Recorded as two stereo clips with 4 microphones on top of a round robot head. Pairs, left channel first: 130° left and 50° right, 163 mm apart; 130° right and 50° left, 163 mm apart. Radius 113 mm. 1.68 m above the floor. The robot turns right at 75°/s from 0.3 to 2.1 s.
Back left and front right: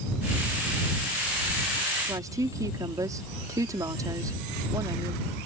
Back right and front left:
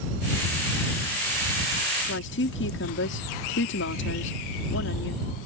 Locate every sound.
2.0 s a woman speaking: 125° right; by 5.3 s 120° right